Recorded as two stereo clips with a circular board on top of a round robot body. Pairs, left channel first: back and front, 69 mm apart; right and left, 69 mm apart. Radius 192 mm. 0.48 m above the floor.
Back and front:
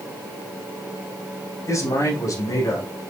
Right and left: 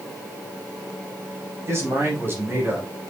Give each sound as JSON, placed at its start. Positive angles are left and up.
{"t": 1.7, "sound": "a man speaking", "azimuth_deg": 140, "distance_m": 5.5}